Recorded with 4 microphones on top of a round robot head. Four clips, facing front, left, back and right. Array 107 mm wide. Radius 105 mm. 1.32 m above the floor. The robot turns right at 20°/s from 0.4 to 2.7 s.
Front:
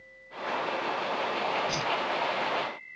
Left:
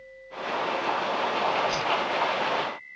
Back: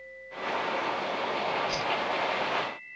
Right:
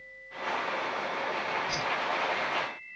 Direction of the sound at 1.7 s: Straight ahead.